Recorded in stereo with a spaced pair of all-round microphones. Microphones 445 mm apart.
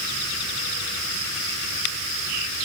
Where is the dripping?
I don't hear dripping.